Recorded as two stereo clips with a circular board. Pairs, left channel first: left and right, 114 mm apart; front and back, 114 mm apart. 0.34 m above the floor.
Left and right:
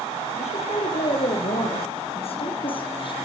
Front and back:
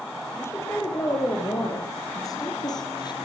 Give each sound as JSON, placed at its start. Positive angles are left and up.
{"t": 0.4, "sound": "a woman speaking", "azimuth_deg": 70, "distance_m": 7.5}